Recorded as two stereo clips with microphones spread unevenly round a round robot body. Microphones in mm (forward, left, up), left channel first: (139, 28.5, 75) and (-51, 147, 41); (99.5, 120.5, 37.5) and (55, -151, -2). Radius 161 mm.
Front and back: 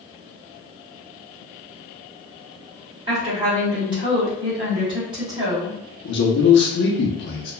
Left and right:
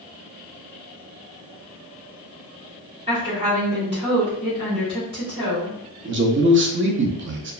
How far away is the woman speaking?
About 1.4 m.